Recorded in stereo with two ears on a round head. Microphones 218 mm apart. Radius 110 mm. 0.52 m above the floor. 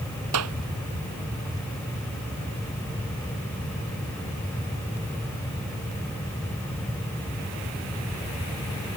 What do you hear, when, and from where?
0.3 s a clap: 75° right (ahead or behind)